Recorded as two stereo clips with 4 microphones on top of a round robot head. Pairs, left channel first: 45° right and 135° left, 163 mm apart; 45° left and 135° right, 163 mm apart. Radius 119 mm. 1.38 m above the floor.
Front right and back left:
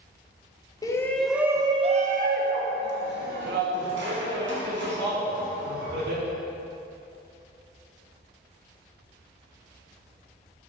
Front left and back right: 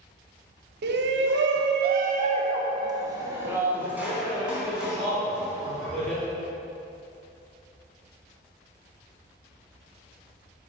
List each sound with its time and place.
0.8 s a shout: 115° right, 0.7 m; by 6.2 s 135° left, 2.5 m